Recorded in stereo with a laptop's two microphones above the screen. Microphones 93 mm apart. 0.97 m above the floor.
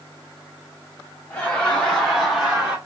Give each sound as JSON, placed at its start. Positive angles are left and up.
{"t": 1.3, "sound": "laughter", "side_deg": 20, "distance_m": 1.8}